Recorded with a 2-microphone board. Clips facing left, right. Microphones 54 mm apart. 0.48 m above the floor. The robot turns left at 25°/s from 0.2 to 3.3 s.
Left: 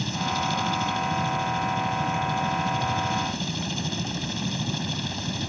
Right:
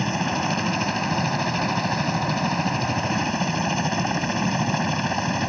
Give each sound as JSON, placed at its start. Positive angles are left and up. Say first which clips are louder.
{"t": 0.0, "sound": "a helicopter", "louder": "right 3 dB", "azimuth_deg": -50}